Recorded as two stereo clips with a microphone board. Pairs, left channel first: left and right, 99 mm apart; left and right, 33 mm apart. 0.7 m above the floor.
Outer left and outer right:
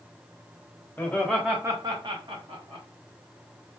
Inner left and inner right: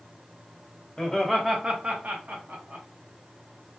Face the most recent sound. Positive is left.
turn(degrees=-65)  # may be behind; listen again after turning